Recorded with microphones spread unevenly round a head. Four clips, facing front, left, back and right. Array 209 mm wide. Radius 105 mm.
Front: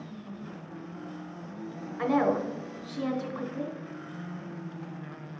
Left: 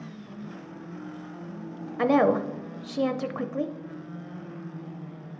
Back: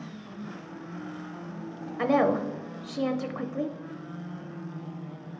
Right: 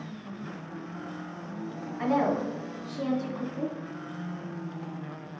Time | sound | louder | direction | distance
2.0 | a woman speaking | left 5 dB, back 2 dB | 115° left | 0.5 m